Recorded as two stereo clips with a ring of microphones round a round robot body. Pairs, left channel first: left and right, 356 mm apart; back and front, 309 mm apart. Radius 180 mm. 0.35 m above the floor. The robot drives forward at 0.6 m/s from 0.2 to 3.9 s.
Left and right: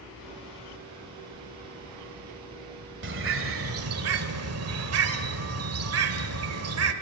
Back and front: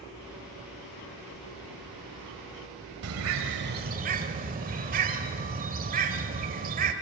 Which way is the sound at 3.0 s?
35° right.